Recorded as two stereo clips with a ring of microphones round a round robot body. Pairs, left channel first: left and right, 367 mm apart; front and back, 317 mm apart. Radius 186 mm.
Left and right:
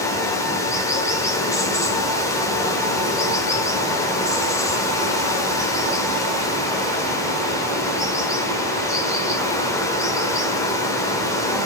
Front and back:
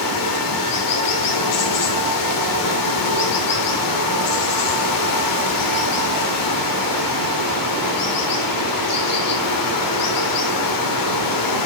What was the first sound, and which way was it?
Running water, 10° left.